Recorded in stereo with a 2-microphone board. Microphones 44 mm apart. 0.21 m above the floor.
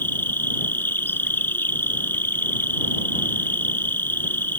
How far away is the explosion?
No explosion in this recording.